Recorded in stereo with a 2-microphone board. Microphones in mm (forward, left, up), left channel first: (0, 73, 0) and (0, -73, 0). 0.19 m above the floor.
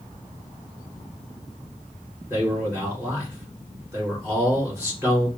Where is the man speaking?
20° right (ahead or behind), 3 m.